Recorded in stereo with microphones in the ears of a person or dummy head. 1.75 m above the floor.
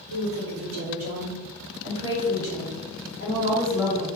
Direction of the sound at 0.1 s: 55° right (ahead or behind).